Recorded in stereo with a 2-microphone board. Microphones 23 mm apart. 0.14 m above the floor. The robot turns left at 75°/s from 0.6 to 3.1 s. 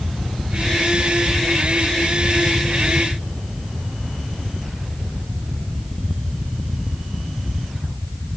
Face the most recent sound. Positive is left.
No sound to turn to.